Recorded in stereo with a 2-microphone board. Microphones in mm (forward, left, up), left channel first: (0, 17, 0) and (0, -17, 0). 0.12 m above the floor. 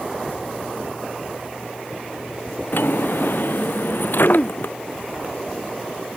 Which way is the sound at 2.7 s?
70° left (ahead or behind).